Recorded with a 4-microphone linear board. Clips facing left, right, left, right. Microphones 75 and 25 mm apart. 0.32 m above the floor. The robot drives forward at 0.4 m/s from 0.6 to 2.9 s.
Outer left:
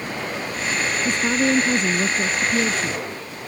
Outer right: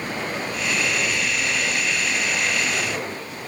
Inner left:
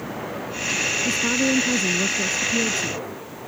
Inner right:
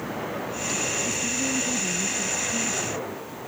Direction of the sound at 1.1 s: 70° left (ahead or behind).